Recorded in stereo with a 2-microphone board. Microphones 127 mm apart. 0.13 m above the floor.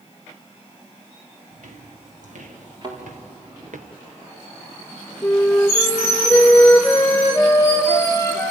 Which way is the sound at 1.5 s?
80° right.